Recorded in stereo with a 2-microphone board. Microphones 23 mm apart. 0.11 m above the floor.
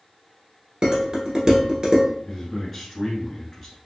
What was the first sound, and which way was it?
Dishes clattering, 35° right (ahead or behind).